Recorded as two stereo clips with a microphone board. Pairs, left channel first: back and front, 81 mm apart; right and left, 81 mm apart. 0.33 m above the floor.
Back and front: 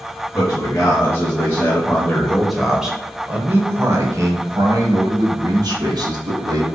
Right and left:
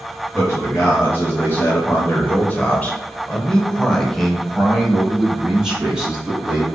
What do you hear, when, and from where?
0.3 s a man speaking: 145° right, 1.6 m; by 6.7 s 10° left, 2.5 m